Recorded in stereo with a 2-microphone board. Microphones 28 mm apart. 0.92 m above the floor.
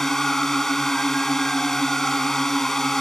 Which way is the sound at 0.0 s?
15° left (ahead or behind).